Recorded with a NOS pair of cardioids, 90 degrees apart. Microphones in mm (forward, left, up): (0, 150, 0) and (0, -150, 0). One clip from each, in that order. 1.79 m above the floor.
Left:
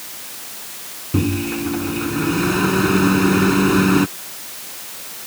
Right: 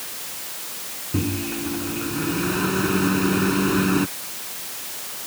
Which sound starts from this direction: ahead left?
A microwave, at 1.1 s.